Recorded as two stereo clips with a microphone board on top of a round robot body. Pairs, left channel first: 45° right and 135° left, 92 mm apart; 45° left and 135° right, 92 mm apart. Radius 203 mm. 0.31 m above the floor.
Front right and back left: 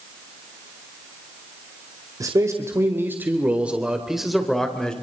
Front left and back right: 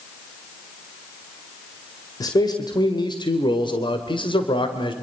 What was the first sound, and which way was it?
A man speaking, 85° left.